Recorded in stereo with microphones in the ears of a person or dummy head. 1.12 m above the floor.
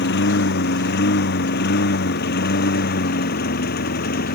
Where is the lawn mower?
65° left (ahead or behind); by 4.3 s 55° left (ahead or behind).